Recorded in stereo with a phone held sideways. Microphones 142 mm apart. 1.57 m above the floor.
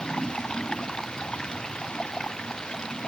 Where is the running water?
5° left (ahead or behind).